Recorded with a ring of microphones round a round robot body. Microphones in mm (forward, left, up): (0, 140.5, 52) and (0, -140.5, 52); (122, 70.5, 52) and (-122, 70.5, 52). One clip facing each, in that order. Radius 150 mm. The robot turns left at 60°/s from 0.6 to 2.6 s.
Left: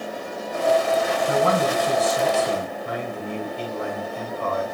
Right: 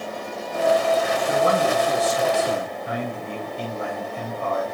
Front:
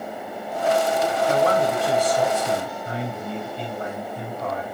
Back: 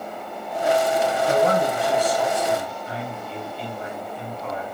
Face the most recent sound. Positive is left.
turn(degrees=30)